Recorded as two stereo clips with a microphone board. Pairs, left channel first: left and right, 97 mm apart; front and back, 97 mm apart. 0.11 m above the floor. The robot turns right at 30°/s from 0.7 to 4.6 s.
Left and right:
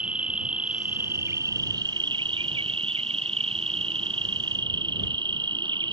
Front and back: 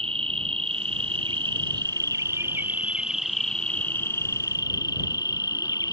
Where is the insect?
170° right; by 5.9 s 50° right.